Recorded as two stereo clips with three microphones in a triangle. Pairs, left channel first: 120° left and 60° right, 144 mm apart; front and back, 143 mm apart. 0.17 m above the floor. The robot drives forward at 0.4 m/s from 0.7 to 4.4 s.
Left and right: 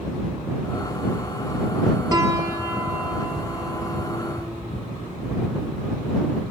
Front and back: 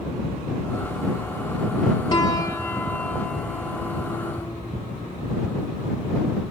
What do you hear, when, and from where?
2.1 s a piano: 20° right, 1.1 m; by 4.6 s 150° right, 1.0 m